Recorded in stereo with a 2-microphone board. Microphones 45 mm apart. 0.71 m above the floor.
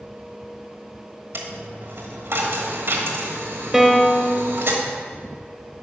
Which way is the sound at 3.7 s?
5° right (ahead or behind).